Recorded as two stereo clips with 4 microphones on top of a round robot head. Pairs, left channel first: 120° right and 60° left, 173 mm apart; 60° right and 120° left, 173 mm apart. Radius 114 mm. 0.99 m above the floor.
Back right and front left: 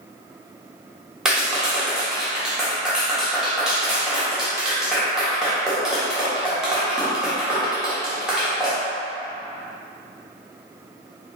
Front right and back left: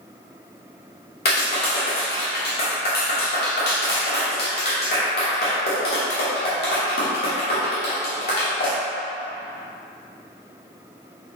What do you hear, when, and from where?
1.2 s a clap: 30° right, 1.3 m